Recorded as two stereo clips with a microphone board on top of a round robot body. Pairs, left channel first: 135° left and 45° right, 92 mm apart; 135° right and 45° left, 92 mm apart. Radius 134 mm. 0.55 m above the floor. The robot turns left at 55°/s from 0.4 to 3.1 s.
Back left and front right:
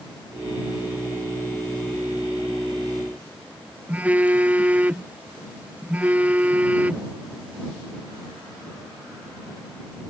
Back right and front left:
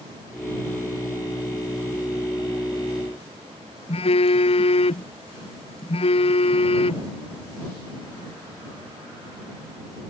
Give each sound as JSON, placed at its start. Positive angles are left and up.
{"t": 3.9, "sound": "a phone buzzing", "azimuth_deg": -120}